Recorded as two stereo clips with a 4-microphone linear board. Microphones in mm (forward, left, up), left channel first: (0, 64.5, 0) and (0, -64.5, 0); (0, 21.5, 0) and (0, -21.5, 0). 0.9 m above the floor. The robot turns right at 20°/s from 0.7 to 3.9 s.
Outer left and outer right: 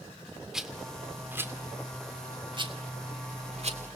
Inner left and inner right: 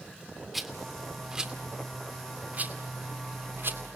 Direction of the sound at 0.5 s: 5° right (ahead or behind).